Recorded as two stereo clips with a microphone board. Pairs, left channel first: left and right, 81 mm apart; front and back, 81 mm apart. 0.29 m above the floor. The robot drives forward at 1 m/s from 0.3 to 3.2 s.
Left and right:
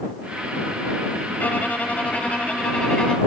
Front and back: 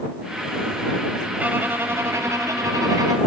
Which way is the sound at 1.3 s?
130° left.